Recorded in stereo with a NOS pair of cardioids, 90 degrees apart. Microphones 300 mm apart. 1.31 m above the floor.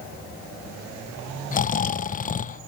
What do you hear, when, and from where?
1.5 s snoring: 25° left, 0.6 m